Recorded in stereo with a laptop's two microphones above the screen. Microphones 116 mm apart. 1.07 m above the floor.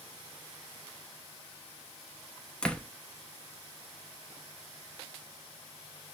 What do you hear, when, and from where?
2.6 s a door slam: 10° left (ahead or behind), 0.8 m